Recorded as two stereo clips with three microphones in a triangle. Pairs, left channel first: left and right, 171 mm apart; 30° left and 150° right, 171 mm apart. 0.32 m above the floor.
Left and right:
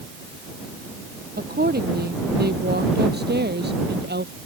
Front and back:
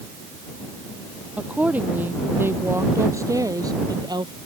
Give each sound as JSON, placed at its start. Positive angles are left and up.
{"t": 1.4, "sound": "a woman speaking", "azimuth_deg": -65}